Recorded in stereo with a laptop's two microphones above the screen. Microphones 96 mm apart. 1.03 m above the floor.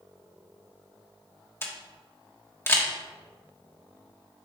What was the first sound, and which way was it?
A camera shutter, 25° left (ahead or behind).